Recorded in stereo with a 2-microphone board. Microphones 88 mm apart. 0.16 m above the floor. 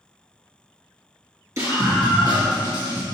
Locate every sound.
1.6 s a scream: 40° right (ahead or behind), 2.5 m; by 3.0 s 55° right (ahead or behind), 3.5 m